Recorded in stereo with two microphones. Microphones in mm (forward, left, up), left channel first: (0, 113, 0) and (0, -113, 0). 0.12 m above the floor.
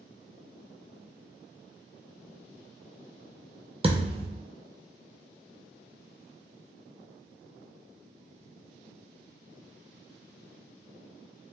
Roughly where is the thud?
Right.